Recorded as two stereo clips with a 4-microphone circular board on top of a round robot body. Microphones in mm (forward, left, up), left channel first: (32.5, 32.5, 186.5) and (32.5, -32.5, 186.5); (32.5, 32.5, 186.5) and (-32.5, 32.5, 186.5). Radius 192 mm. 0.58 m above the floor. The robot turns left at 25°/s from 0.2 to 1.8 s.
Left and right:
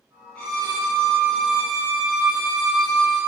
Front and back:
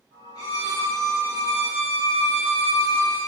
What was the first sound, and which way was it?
A violin, 15° left.